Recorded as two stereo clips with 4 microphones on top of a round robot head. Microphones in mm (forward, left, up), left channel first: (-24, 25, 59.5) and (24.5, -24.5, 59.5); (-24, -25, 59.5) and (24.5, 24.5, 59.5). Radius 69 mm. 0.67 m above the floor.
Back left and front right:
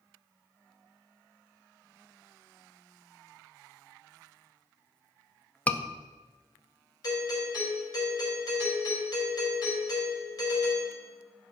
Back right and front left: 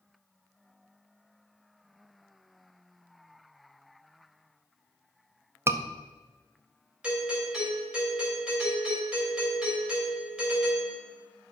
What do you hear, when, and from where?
5.7 s a scream: 75° left, 0.8 m
7.0 s a doorbell: 115° left, 4 m